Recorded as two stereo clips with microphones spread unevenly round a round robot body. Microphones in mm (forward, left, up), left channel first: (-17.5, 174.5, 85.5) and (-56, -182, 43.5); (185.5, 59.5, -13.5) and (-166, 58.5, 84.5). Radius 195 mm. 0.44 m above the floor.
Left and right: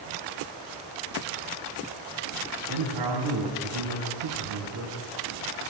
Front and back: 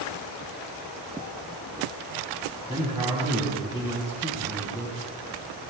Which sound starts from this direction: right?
A man speaking, at 2.7 s.